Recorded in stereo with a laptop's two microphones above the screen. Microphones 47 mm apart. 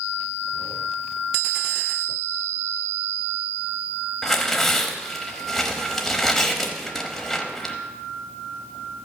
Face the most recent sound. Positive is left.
turn(degrees=5)  # may be behind; listen again after turning